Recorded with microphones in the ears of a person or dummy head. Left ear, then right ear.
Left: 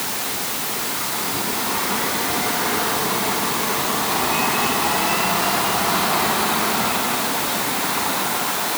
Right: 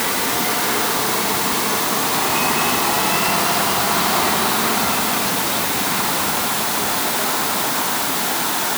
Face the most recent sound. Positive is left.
No sound to turn to.